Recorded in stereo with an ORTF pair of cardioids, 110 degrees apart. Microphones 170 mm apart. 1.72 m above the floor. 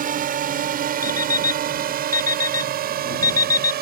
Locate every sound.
0.0 s a drone: 55° right; by 3.8 s 65° right
1.0 s an alarm clock: 20° left